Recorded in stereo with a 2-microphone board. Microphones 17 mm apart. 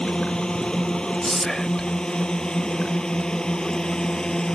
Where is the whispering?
20° left (ahead or behind).